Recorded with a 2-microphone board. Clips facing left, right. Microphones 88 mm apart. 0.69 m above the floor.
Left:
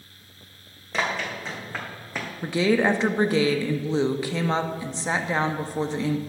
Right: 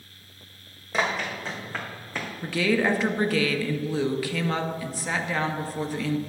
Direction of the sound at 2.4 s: 25° left (ahead or behind).